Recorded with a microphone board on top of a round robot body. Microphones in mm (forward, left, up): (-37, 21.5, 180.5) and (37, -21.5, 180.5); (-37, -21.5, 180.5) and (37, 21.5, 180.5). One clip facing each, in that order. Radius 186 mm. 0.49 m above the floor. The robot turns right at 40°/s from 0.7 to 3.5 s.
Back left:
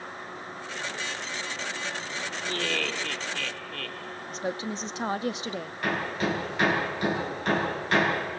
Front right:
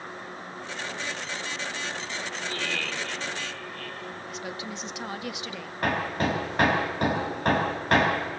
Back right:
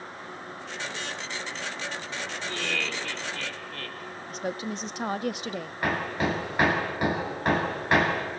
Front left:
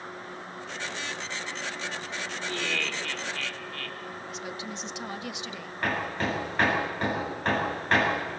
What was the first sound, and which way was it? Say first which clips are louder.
Laughter: back left 4 dB, even; 115° left.